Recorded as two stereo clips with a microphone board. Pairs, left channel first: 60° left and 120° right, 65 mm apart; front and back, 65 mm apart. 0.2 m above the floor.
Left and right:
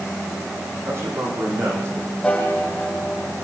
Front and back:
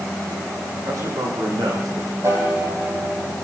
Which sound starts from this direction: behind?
A man speaking, at 0.8 s.